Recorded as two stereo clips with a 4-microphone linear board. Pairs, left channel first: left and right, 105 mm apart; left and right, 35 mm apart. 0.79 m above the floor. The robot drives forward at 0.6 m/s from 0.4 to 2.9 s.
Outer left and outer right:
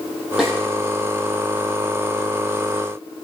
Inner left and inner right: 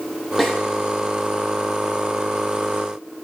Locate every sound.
0.4 s a snare drum: centre (ahead or behind), 7.5 m